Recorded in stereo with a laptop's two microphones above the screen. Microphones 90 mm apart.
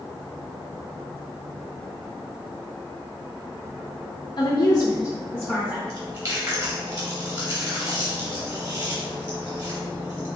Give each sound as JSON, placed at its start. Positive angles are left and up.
{"t": 4.4, "sound": "a woman speaking", "side_deg": 50, "distance_m": 0.6}
{"t": 5.9, "sound": "chewing", "side_deg": -40, "distance_m": 1.7}